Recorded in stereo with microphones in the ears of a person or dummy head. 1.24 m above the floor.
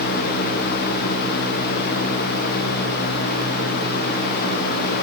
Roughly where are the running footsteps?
I don't hear running footsteps.